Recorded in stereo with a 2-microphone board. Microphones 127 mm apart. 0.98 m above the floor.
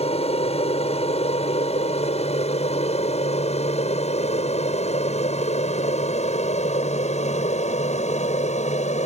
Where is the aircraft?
55° left (ahead or behind); by 9.1 s 65° left (ahead or behind).